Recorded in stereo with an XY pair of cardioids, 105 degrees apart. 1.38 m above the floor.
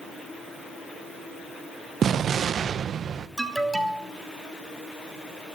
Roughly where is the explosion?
Ahead right.